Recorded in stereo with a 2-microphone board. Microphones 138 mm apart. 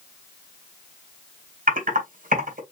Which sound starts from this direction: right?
Typing on a keyboard, at 1.7 s.